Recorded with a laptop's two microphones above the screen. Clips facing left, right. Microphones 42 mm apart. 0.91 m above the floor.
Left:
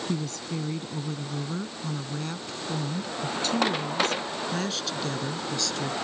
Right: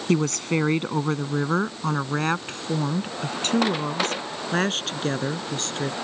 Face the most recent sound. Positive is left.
turn(degrees=-40)  # may be behind; listen again after turning